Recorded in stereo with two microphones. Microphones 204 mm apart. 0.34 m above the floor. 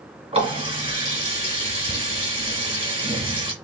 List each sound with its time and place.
0.3 s a running tap: 25° right (ahead or behind), 1.9 m